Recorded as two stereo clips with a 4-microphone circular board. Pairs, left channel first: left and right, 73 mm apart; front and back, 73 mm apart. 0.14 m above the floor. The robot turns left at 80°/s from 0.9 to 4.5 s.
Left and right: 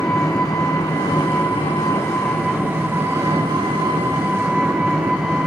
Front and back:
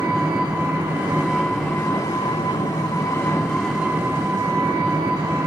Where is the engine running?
135° left, 3 m; by 5.5 s 155° right, 3 m.